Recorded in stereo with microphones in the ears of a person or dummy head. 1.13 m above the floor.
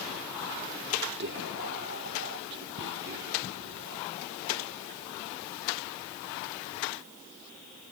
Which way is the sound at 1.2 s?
55° right (ahead or behind).